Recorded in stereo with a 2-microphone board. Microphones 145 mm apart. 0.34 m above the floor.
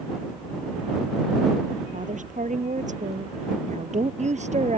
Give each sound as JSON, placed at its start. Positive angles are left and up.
{"t": 1.9, "sound": "a woman speaking", "side_deg": -60}